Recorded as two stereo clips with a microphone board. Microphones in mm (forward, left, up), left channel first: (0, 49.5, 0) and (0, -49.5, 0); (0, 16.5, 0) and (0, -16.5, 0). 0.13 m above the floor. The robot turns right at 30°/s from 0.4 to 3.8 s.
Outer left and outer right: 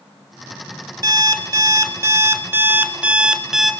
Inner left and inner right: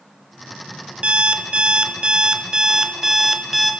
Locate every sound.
1.0 s an alarm clock: 85° right, 0.5 m; by 3.7 s straight ahead, 0.5 m